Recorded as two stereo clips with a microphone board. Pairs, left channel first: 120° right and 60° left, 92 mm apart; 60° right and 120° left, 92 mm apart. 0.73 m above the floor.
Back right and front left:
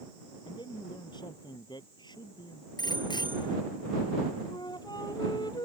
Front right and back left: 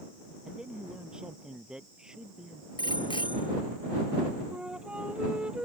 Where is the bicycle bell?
85° right.